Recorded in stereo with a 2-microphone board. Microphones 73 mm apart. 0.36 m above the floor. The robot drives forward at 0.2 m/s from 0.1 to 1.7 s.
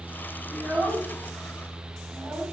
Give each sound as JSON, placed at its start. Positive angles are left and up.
{"t": 0.5, "sound": "a child speaking", "side_deg": 0, "distance_m": 1.3}